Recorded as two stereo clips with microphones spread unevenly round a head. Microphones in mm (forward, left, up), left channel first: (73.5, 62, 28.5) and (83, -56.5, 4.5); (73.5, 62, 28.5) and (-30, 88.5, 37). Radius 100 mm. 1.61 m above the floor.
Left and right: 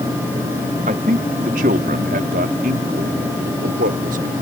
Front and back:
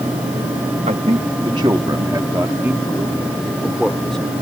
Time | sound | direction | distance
0.9 | a man speaking | 140° right | ?